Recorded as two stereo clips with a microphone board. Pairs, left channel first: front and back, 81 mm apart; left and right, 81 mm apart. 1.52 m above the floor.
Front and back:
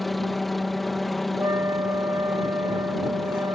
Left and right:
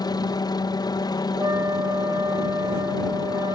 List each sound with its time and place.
0.0 s a helicopter: 90° left
1.4 s a flute: 135° right